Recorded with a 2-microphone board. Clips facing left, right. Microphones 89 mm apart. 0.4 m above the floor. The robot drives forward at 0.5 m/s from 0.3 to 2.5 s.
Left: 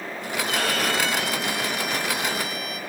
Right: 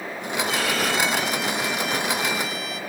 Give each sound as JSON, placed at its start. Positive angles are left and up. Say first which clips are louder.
{"t": 0.5, "sound": "a violin", "louder": "even", "side_deg": 50, "distance_m": 9.0}